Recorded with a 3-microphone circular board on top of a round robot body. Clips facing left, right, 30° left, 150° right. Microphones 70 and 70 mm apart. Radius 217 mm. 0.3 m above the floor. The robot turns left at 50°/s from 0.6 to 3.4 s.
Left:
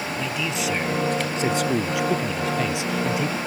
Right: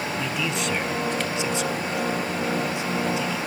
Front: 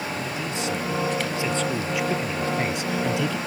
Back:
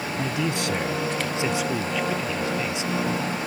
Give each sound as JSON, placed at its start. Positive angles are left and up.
{"t": 0.2, "sound": "a man speaking", "azimuth_deg": 180}